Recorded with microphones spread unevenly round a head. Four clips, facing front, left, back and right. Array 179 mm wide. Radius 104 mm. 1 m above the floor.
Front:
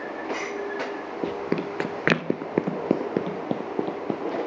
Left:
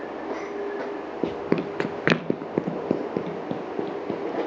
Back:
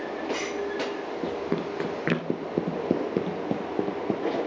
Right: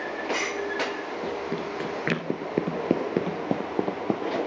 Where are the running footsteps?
70° left, 1.5 m; by 4.4 s 65° right, 2.5 m.